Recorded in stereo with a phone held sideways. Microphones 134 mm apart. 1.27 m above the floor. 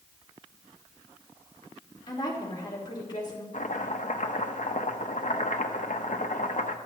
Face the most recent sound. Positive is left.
turn(degrees=70)  # may be behind; listen again after turning